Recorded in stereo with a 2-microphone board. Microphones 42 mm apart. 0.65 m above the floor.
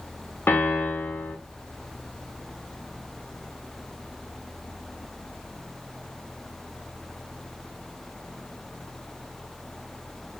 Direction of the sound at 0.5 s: 55° left (ahead or behind).